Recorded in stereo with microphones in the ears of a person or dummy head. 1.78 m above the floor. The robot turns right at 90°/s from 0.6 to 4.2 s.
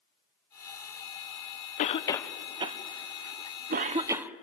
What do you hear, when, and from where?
1.8 s a cough: 40° left (ahead or behind), 0.9 m; by 4.4 s 5° right (ahead or behind), 0.9 m